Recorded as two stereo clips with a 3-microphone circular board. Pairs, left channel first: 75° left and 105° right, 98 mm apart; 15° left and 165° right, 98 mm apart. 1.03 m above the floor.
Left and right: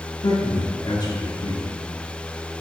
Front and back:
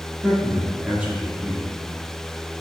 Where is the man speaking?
120° left, 1.9 m.